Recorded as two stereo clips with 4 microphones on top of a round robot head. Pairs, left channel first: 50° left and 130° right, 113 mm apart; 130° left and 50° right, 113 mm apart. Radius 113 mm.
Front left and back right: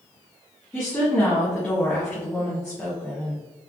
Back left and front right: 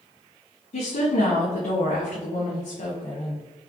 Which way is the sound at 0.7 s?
130° left.